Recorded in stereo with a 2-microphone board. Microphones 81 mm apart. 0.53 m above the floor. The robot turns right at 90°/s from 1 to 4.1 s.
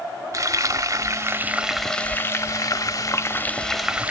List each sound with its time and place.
0.3 s frying: 75° right, 0.9 m; by 4.1 s 155° right, 0.9 m